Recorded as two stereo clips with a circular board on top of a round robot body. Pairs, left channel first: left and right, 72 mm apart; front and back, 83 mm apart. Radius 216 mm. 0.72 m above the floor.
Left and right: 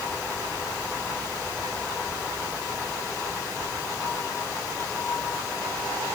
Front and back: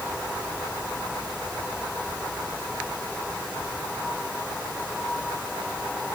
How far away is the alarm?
No alarm in this recording.